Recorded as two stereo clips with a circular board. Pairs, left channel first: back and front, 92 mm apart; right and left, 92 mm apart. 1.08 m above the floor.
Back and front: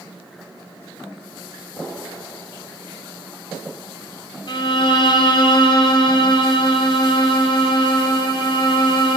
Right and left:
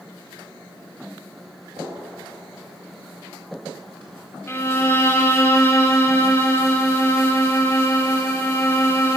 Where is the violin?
150° right, 0.6 m.